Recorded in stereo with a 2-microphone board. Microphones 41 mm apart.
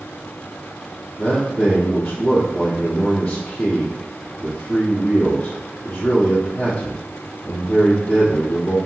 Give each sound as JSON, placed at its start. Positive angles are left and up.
{"t": 1.2, "sound": "a man speaking", "side_deg": 40, "distance_m": 1.9}